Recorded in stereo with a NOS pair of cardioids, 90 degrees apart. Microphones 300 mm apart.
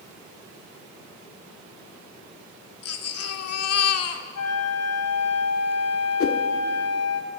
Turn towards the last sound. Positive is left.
turn(degrees=50)